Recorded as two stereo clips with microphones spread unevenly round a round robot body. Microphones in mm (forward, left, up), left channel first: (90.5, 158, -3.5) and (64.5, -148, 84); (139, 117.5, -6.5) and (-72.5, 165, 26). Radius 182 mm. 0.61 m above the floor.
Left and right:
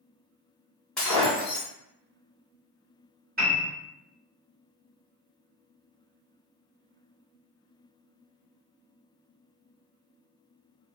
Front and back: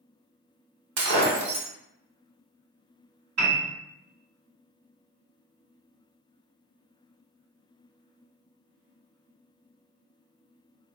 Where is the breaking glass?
175° left, 0.8 m.